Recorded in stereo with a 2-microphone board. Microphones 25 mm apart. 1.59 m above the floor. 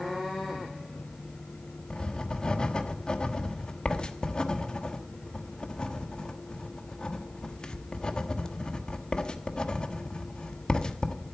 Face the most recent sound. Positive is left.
turn(degrees=35)  # may be behind; listen again after turning